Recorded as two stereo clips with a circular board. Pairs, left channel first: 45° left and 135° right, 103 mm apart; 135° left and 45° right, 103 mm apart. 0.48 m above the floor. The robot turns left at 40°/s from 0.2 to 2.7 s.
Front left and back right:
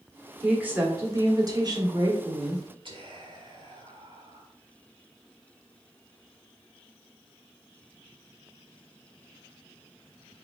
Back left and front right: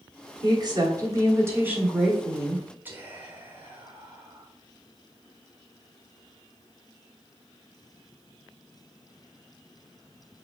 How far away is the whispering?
About 1.2 m.